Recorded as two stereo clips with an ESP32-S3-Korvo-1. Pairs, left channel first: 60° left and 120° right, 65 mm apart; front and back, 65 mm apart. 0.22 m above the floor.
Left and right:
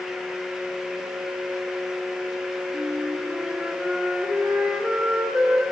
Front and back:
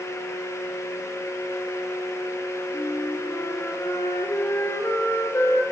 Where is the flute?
50° right, 3 m.